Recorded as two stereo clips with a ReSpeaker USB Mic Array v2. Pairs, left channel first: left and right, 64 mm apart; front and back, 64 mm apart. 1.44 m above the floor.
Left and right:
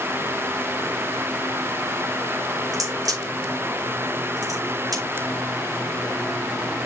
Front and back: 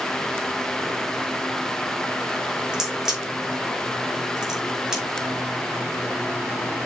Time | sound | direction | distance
2.7 | a crack | 100° right | 4 m